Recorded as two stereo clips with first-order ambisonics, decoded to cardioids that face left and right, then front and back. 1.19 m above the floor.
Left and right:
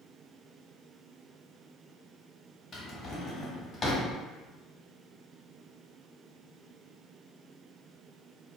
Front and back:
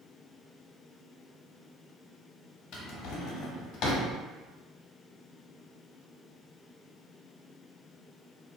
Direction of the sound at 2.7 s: 25° left.